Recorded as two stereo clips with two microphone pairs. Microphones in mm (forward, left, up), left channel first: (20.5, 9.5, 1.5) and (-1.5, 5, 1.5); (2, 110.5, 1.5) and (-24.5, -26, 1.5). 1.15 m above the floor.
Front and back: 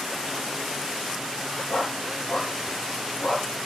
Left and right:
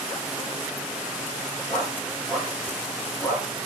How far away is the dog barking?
About 8 m.